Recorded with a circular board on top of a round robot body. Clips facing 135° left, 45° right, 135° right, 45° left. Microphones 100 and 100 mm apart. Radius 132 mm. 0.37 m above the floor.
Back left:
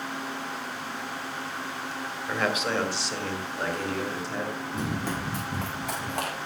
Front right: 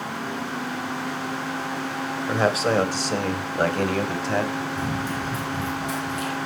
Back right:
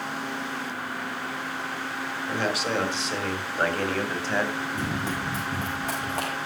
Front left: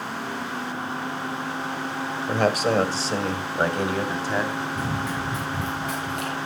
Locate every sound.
2.3 s a man speaking: 15° left, 2.5 m; by 4.6 s 40° right, 4 m
4.7 s running footsteps: 165° left, 7.5 m; by 6.4 s 175° left, 5.5 m